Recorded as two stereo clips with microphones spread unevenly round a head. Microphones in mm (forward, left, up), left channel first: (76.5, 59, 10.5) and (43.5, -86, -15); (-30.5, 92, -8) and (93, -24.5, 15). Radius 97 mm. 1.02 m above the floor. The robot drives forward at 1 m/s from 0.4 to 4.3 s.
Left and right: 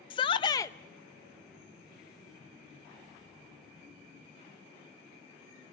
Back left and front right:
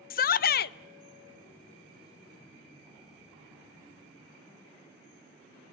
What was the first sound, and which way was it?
A shout, 145° left.